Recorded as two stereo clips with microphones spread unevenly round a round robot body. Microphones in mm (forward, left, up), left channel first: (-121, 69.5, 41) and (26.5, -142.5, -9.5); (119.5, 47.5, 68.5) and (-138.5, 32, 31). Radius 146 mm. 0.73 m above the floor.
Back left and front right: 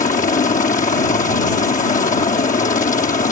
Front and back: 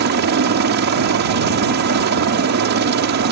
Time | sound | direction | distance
0.0 | a helicopter | 175° right | ?